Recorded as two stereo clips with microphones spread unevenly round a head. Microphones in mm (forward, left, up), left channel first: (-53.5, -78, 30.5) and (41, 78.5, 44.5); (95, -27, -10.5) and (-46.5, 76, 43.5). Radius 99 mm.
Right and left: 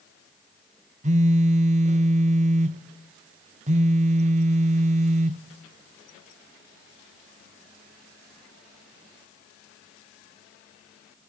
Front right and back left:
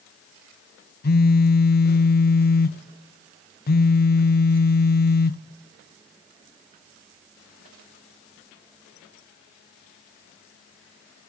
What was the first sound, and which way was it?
A phone buzzing, 5° left.